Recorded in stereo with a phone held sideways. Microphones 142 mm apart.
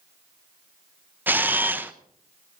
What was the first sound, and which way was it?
A camera shutter, 15° right (ahead or behind).